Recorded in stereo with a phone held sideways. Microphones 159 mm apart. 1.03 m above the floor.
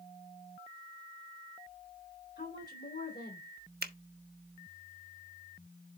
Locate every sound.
2.4 s a woman speaking: 80° left, 3.5 m
3.8 s a finger snap: 85° right, 1.0 m